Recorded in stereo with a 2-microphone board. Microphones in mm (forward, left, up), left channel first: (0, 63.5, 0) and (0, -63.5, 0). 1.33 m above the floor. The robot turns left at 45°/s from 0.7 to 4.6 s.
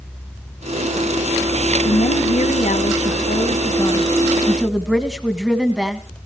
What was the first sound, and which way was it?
A woman speaking, 125° left.